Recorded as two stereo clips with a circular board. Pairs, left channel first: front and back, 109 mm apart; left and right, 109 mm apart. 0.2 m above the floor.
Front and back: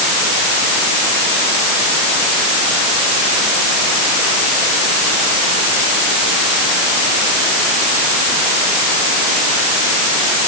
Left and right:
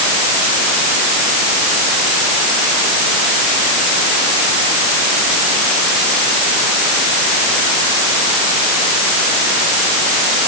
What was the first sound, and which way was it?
Only background noise.